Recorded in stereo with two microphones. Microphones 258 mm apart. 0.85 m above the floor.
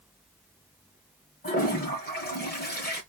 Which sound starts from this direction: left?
A toilet flushing, at 1.4 s.